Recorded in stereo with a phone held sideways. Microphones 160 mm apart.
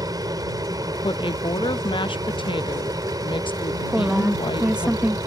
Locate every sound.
0.0 s an aircraft: 25° right (ahead or behind)
1.0 s a woman speaking: 30° left (ahead or behind)
3.9 s a woman speaking: 5° right (ahead or behind)